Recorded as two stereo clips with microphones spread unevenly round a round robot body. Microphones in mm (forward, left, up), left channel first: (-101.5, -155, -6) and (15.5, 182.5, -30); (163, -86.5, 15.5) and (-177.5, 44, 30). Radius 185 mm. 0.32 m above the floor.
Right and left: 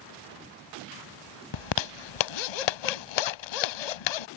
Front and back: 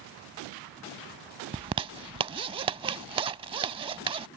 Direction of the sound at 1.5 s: 125° right.